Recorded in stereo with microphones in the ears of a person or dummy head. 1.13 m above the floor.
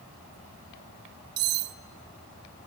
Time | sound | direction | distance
1.4 | cutlery clinking | 55° right (ahead or behind) | 1.2 m